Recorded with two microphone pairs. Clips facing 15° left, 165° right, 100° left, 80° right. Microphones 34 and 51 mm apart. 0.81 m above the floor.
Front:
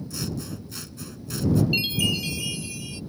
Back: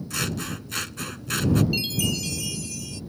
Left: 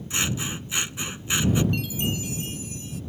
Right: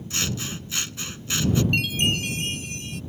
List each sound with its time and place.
0.1 s scissors: 170° left
1.7 s a chime: 55° right